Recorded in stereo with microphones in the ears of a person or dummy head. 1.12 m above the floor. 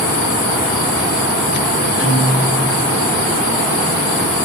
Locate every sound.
2.0 s a guitar: 10° right (ahead or behind), 3 m